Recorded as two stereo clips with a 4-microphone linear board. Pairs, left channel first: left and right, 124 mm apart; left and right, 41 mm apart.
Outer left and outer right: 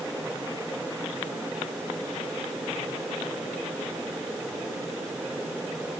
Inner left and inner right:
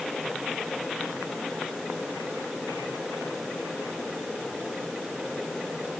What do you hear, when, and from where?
Only background noise.